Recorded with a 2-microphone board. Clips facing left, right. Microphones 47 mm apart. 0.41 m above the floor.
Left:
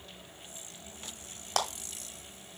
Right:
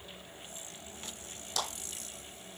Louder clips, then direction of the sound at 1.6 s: Left 5 dB; 55° left (ahead or behind).